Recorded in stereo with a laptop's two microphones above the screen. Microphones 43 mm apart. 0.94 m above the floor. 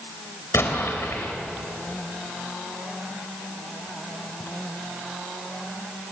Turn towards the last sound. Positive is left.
turn(degrees=85)